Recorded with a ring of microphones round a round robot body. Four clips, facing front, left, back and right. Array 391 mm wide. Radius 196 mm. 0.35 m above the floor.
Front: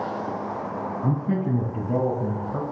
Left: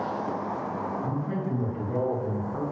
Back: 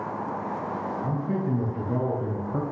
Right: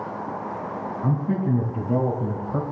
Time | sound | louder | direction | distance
1.0 | a man speaking | right 5 dB, front 5 dB | 45° right | 3.5 m